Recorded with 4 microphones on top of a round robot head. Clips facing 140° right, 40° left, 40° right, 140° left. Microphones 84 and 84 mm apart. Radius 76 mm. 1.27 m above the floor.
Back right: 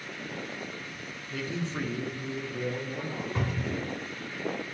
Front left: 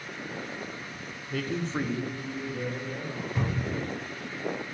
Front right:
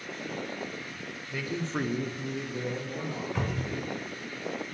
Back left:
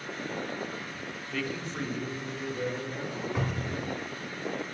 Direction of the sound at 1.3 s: 35° left.